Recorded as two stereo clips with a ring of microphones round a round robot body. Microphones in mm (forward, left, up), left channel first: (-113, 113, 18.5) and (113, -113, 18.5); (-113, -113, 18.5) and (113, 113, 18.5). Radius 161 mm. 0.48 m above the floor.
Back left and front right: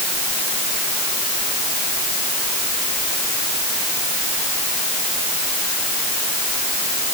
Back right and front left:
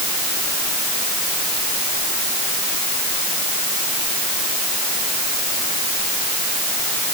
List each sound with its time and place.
Only background noise.